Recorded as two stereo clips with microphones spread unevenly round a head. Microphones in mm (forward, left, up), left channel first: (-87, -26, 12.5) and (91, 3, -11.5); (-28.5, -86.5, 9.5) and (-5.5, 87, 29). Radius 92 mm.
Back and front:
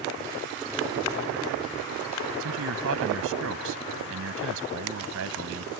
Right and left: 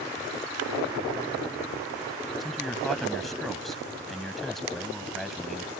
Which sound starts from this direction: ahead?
A man speaking, at 2.4 s.